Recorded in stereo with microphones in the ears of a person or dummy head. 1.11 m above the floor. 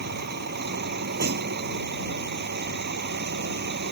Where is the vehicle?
55° right (ahead or behind).